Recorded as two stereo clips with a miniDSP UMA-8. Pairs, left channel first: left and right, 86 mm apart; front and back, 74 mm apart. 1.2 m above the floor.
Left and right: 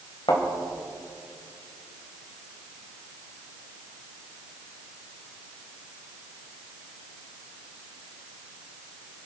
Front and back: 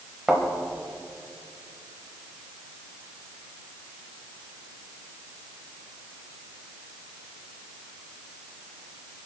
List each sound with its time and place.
0.3 s a thud: 95° left, 3 m